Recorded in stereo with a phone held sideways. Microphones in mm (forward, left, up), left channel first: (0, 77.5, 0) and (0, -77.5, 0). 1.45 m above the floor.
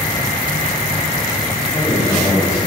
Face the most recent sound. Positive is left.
turn(degrees=5)  # may be behind; listen again after turning